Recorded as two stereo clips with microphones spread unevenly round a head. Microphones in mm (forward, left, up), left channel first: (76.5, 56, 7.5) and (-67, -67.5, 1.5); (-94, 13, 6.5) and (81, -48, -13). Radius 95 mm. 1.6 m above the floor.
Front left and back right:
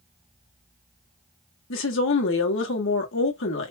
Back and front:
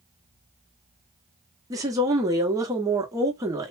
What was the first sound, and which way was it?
A woman speaking, 55° left.